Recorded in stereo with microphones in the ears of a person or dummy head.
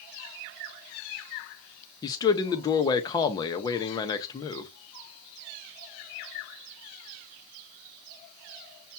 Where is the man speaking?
20° left (ahead or behind), 0.6 m.